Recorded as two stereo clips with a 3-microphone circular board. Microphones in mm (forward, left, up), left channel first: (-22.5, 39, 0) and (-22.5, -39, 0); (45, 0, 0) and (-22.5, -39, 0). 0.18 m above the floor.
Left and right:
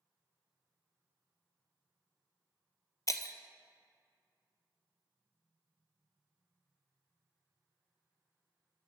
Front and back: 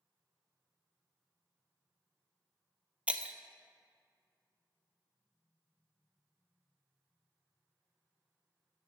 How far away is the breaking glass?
About 0.5 m.